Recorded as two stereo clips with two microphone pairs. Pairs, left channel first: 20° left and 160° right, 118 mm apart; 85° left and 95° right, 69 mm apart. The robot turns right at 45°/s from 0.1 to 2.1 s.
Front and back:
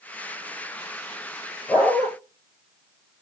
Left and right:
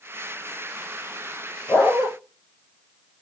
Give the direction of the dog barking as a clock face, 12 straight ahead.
10 o'clock.